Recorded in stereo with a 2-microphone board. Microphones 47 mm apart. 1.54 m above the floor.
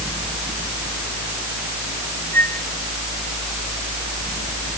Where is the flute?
50° left (ahead or behind).